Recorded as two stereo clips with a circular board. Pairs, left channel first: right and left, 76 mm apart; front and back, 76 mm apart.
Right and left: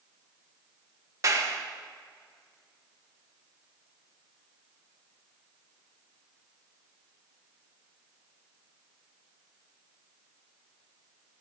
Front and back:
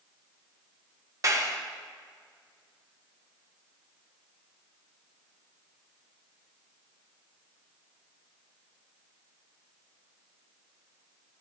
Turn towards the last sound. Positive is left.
turn(degrees=135)